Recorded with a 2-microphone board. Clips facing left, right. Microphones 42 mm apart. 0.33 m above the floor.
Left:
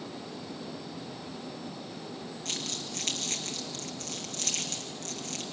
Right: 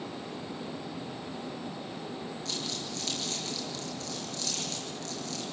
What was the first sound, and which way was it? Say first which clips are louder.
Crumpling: left 1 dB; 55° left (ahead or behind).